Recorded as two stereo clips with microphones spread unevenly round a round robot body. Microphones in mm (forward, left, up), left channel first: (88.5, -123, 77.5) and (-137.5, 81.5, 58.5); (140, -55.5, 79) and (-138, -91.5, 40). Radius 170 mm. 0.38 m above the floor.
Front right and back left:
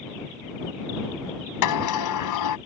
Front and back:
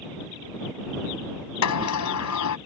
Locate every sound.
1.6 s a sliding door: 15° right